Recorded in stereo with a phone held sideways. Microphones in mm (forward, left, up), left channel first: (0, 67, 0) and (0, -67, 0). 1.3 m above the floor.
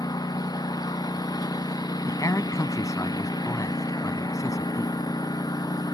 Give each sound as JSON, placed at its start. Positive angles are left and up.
{"t": 0.0, "sound": "a lawn mower", "side_deg": 30}
{"t": 2.1, "sound": "a man speaking", "side_deg": 25}